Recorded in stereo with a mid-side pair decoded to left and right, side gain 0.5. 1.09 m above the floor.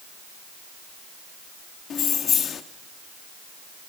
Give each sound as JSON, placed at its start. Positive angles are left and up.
{"t": 1.9, "sound": "keys jangling", "azimuth_deg": 55, "distance_m": 1.2}